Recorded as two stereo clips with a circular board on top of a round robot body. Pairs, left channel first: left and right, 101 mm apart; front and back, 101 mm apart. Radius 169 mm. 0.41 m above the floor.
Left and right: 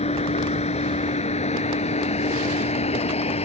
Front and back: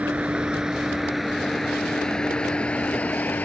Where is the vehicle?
105° left; by 3.5 s 75° left.